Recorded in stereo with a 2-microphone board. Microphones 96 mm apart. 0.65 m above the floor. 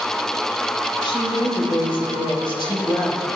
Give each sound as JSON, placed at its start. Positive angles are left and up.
{"t": 1.0, "sound": "a woman speaking", "side_deg": 60, "distance_m": 3.0}